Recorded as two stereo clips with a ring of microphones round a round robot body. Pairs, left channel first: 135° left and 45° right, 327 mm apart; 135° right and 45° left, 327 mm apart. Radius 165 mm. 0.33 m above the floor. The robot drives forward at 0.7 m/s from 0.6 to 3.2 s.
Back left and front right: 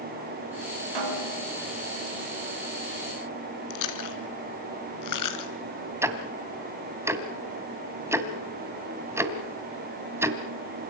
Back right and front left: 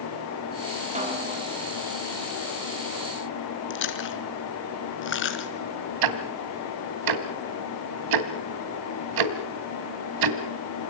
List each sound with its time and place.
0.9 s a snare drum: 25° right, 6 m; by 1.5 s 30° right, 5.5 m
3.7 s chewing: 170° left, 2.5 m
6.0 s ticking: 35° left, 1.8 m